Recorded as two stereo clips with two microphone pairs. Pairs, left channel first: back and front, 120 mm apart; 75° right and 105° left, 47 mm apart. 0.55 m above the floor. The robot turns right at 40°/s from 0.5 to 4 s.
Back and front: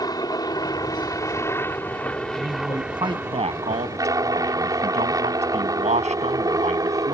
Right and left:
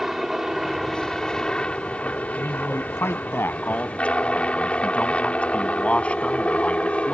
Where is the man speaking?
80° right; by 7.1 s 15° right.